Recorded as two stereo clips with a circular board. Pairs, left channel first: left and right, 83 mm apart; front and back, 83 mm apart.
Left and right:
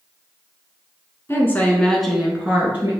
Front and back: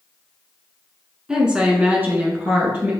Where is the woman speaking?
105° left, 1.2 m; by 2.9 s 135° right, 1.4 m.